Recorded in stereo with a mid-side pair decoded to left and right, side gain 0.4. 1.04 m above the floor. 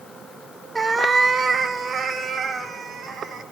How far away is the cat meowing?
About 1.0 m.